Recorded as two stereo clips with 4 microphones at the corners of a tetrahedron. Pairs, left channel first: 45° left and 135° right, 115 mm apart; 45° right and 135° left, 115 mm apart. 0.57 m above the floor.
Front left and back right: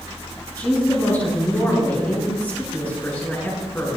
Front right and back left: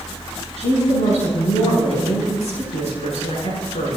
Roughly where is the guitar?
I don't hear a guitar.